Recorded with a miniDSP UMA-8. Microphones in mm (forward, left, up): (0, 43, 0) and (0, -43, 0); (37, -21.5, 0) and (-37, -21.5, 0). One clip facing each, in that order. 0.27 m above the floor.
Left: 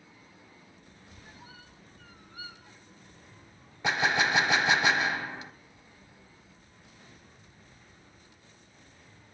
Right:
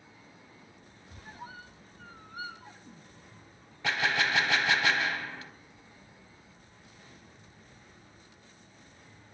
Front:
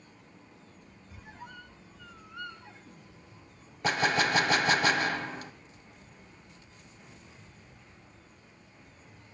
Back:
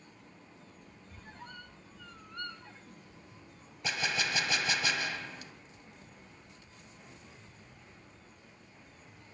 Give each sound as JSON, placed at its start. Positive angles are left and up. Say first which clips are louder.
{"t": 1.1, "sound": "a squeak", "louder": "right 7 dB, front 2 dB", "azimuth_deg": -80, "distance_m": 0.6}
{"t": 3.8, "sound": "a gunshot", "louder": "left 2 dB, front 8 dB", "azimuth_deg": 25, "distance_m": 0.5}